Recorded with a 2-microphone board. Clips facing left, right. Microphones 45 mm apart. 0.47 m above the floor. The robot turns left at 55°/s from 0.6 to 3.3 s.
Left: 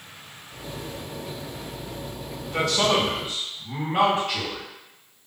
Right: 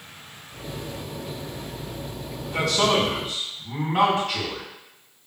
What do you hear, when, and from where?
2.4 s a man speaking: 125° left, 1.5 m; by 4.6 s 80° left, 1.5 m